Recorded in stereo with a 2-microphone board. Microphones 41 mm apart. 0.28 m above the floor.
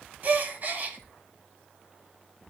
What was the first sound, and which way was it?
A gasp, 40° right (ahead or behind).